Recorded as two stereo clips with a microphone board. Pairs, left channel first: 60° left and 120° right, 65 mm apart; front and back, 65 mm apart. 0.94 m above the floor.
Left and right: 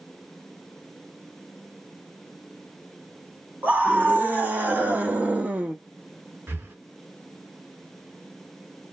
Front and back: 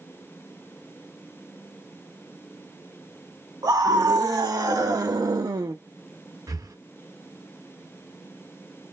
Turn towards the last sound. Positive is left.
turn(degrees=-175)